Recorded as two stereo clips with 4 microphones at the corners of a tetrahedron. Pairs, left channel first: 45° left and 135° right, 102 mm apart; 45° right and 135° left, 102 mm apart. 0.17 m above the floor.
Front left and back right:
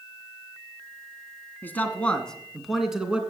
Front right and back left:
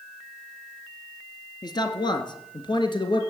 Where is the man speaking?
20° right, 1.8 m; by 3.2 s 60° right, 2.0 m.